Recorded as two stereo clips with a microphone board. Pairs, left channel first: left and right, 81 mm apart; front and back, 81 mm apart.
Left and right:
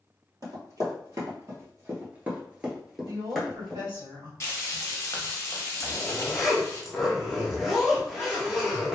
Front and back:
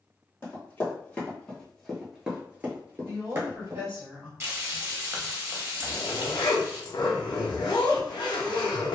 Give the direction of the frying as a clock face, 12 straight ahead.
8 o'clock.